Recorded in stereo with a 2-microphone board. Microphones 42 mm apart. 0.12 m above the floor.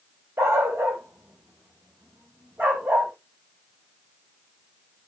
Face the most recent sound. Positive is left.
turn(degrees=-45)  # may be behind; listen again after turning